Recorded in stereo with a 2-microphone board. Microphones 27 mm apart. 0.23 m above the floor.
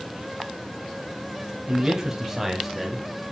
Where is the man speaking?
30° right (ahead or behind), 1.3 m; by 3.0 s 5° left (ahead or behind), 1.7 m.